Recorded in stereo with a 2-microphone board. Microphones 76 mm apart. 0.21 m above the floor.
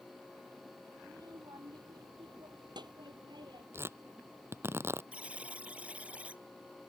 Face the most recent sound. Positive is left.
turn(degrees=-15)  # may be behind; listen again after turning